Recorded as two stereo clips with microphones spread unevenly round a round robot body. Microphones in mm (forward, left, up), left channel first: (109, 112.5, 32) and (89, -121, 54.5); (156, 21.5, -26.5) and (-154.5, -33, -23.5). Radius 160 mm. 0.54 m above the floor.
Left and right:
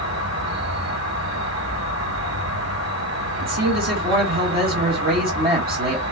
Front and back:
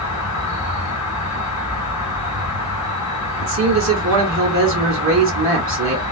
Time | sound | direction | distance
0.0 | an insect | 90° right | 2.5 m
3.4 | a man speaking | 135° right | 1.4 m